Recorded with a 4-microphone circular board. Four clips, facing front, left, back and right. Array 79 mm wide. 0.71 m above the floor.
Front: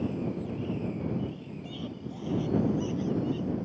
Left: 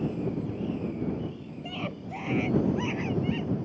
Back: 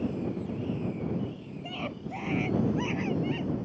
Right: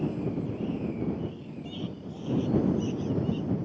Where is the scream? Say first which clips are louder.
Left 3 dB, back 3 dB; 135° left; by 3.7 s 130° left.